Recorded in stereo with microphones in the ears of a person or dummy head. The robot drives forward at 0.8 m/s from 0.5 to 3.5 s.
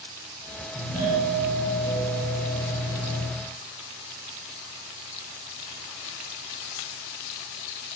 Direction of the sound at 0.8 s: 40° right (ahead or behind).